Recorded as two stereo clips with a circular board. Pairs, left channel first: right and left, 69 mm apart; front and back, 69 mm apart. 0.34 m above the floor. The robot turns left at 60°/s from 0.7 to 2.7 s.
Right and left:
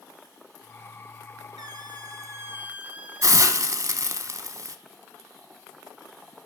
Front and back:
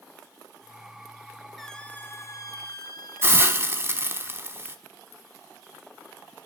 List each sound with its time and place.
1.6 s a squeak: 90° left, 0.8 m; by 3.6 s 20° left, 0.8 m
3.2 s a hiss: 130° left, 1.0 m